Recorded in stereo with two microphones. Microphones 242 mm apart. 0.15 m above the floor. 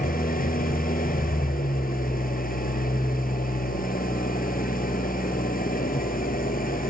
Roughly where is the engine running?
Left.